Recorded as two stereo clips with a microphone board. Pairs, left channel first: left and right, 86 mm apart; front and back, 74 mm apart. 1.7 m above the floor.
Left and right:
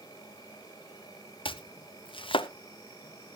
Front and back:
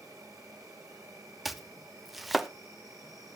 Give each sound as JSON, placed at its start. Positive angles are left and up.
{"t": 0.0, "sound": "an insect", "azimuth_deg": 140, "distance_m": 7.0}
{"t": 1.4, "sound": "chopping", "azimuth_deg": 90, "distance_m": 0.7}